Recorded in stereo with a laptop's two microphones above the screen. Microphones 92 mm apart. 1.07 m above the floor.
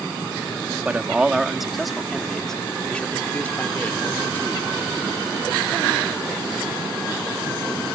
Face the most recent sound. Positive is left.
turn(degrees=20)  # may be behind; listen again after turning